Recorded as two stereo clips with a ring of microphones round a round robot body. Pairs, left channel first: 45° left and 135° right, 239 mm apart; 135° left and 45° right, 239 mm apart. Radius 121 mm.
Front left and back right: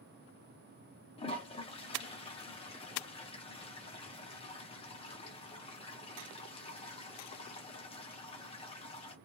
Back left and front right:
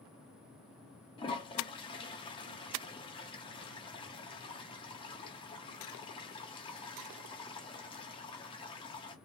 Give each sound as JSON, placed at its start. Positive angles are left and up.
{"t": 1.2, "sound": "a toilet flushing", "azimuth_deg": 85, "distance_m": 0.7}